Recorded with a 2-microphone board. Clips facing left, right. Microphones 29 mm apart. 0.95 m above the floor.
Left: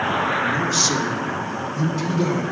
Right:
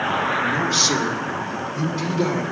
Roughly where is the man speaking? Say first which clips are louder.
Right 1 dB; right.